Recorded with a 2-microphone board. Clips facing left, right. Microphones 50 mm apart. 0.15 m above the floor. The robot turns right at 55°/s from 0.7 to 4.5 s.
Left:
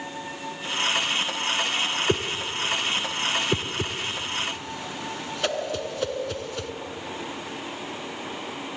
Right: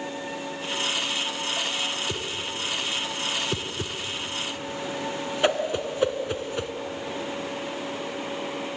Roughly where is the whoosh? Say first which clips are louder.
Left 5 dB; left.